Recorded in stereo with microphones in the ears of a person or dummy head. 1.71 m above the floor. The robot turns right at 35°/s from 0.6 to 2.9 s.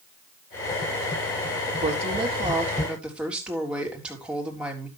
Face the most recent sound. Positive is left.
turn(degrees=-5)